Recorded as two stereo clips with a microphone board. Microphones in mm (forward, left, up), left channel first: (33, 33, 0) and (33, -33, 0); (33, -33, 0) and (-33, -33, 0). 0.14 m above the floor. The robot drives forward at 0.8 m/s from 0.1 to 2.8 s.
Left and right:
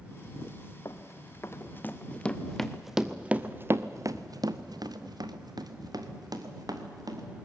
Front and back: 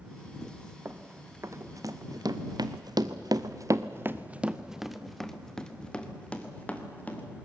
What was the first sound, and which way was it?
Running footsteps, 125° left.